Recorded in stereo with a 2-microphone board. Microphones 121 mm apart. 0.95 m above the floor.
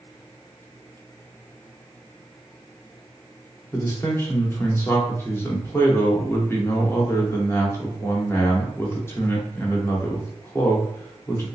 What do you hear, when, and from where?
3.7 s a man speaking: 20° left (ahead or behind), 0.8 m